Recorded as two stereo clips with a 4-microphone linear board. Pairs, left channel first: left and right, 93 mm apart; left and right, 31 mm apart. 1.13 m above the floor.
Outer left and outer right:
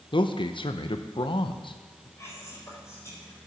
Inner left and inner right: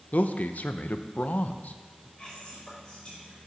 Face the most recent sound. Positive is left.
turn(degrees=30)  # may be behind; listen again after turning